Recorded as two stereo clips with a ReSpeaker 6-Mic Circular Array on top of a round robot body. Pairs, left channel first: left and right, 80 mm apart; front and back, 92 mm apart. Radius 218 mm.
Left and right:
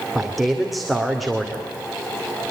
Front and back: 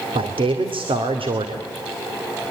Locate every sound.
0.1 s a man speaking: straight behind, 2.5 m